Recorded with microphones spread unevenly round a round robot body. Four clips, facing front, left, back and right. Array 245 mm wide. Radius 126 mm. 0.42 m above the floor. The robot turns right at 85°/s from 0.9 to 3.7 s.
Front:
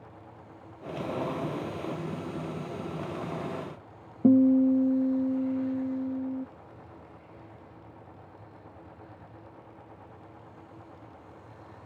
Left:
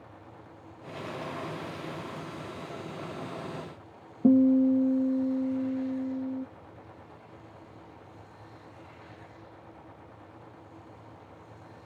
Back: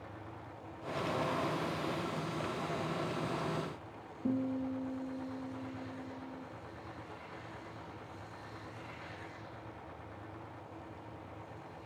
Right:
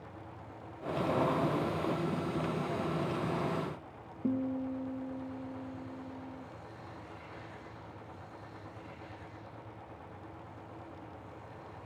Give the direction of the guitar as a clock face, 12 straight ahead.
11 o'clock.